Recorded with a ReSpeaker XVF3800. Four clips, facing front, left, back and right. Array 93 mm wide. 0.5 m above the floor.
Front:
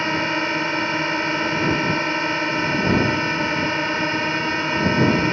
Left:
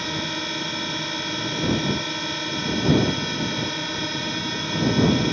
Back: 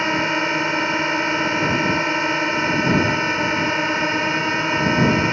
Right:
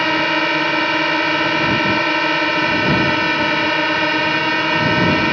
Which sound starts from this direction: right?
A drone, at 0.0 s.